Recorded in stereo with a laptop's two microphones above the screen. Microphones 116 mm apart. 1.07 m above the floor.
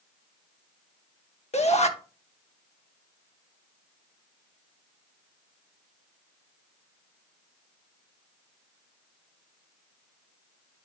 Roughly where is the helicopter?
I don't hear a helicopter.